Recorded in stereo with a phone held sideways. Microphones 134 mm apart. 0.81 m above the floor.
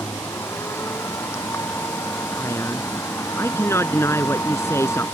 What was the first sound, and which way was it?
A machine running, 20° left (ahead or behind).